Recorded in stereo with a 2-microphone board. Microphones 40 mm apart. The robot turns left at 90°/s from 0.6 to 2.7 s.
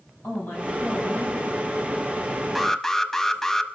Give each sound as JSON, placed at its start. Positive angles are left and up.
{"t": 0.2, "sound": "a man speaking", "azimuth_deg": 120, "distance_m": 6.5}
{"t": 2.5, "sound": "an alarm", "side_deg": 0, "distance_m": 0.8}